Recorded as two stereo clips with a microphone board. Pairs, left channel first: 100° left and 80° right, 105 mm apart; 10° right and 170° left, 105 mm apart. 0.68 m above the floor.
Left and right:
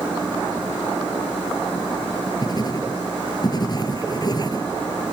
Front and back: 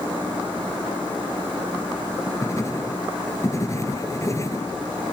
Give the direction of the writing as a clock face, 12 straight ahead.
10 o'clock.